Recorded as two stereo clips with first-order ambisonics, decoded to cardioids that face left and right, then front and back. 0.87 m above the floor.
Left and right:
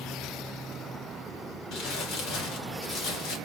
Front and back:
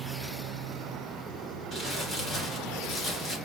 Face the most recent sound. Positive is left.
turn(degrees=75)